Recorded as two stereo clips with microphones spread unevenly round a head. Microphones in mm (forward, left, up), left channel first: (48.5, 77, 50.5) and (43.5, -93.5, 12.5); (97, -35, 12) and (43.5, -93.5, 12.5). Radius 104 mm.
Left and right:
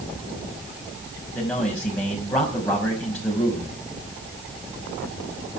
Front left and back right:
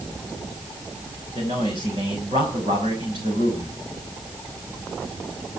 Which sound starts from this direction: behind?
A man speaking, at 1.4 s.